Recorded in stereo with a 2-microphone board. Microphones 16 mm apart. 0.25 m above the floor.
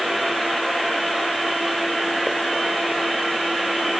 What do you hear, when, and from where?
Only background noise.